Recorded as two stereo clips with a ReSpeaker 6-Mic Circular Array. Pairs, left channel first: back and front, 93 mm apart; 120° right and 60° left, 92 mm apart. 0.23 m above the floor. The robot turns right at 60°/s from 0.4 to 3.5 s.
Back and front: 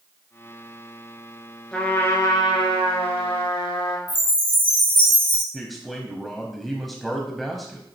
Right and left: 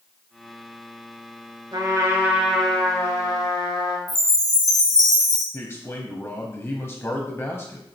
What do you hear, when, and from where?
1.7 s a trumpet: 100° left, 1.8 m; by 4.0 s 155° right, 1.8 m
4.1 s a chime: 170° right, 2.5 m
5.5 s a man speaking: 95° right, 1.0 m